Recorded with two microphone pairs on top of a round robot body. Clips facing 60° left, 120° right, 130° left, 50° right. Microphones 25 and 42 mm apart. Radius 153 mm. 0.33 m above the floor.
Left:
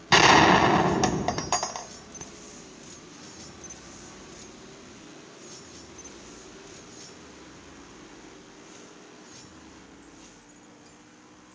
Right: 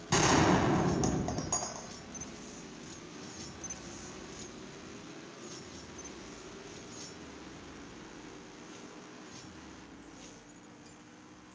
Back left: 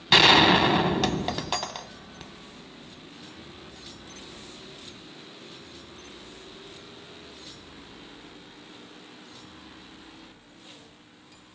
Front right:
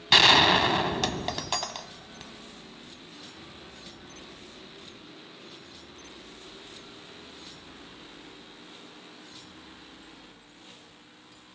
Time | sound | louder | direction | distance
0.1 | a gunshot | left 10 dB, back left 2 dB | 50° left | 0.9 m